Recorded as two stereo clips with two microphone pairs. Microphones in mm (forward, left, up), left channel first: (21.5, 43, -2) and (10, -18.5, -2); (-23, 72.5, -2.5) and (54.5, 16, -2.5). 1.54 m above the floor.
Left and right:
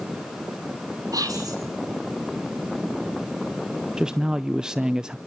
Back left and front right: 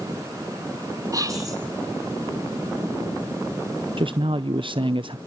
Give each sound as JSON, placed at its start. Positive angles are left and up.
{"t": 1.1, "sound": "whispering", "azimuth_deg": -90, "distance_m": 6.0}
{"t": 4.0, "sound": "a man speaking", "azimuth_deg": -25, "distance_m": 0.5}